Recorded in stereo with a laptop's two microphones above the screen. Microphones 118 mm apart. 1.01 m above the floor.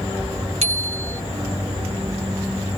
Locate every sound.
0.6 s a bicycle bell: 70° right (ahead or behind)